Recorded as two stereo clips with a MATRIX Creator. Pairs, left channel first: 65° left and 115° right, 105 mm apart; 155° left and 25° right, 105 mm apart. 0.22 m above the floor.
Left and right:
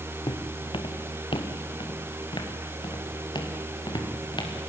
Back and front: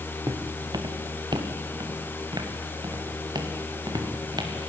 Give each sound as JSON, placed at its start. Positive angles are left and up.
{"t": 0.3, "sound": "footsteps", "azimuth_deg": 30, "distance_m": 1.7}